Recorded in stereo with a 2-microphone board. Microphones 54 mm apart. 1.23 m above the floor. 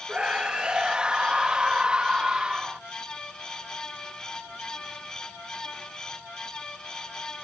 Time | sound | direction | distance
0.1 | a scream | 15° right (ahead or behind) | ?